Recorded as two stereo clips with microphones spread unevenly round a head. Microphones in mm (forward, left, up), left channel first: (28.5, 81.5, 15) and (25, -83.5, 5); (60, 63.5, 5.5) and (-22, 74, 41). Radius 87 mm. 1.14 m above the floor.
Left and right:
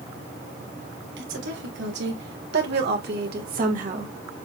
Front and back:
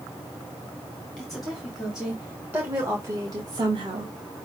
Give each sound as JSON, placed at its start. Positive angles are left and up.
{"t": 1.2, "sound": "a woman speaking", "azimuth_deg": -85, "distance_m": 2.0}